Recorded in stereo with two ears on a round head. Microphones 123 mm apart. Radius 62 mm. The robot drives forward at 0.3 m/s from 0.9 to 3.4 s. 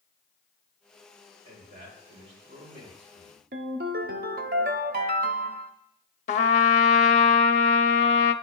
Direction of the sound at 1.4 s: 45° right (ahead or behind).